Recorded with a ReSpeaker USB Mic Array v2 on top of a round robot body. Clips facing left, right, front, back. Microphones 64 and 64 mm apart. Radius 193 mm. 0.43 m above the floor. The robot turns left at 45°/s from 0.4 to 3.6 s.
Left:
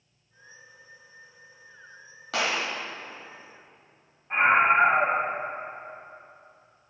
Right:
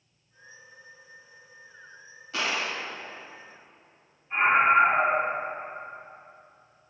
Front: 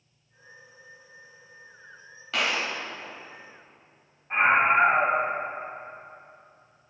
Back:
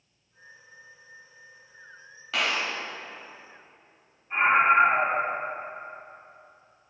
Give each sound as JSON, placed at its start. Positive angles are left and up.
{"t": 2.3, "sound": "a gunshot", "azimuth_deg": 90, "distance_m": 1.9}
{"t": 4.3, "sound": "a scream", "azimuth_deg": 50, "distance_m": 4.0}